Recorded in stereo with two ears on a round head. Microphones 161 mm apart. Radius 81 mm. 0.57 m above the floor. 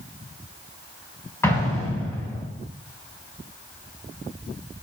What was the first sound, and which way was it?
An explosion, 15° left (ahead or behind).